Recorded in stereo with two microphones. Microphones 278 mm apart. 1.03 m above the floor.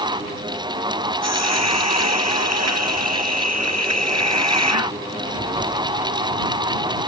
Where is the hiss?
65° right (ahead or behind).